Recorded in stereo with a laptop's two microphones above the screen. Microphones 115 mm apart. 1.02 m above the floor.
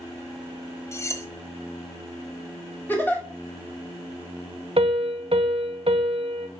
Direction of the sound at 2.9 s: 15° left (ahead or behind).